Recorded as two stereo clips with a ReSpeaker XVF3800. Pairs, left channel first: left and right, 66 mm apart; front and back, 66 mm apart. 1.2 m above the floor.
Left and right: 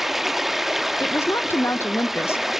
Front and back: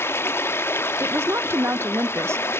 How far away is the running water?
About 0.8 m.